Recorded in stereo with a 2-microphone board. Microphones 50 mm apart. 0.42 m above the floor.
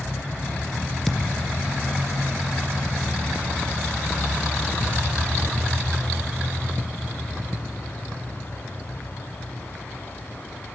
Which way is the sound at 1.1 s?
5° left (ahead or behind).